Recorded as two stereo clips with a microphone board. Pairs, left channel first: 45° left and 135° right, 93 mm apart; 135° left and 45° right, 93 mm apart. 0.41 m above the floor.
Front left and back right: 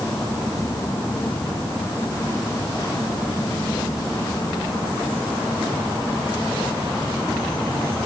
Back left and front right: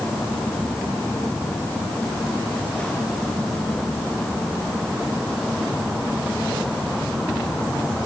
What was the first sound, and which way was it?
Only background noise.